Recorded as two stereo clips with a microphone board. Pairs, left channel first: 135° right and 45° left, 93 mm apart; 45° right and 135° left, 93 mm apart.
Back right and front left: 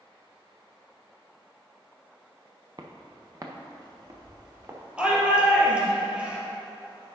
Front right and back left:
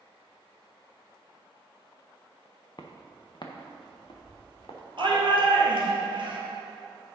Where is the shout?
120° left, 2.5 m.